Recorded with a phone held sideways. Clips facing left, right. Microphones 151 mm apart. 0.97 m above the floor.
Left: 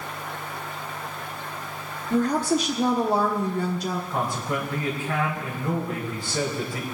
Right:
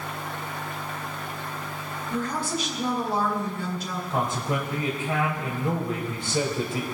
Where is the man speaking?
20° right (ahead or behind), 4.5 m.